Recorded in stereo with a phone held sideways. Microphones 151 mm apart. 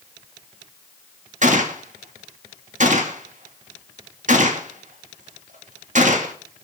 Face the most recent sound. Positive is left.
turn(degrees=-55)  # may be behind; listen again after turning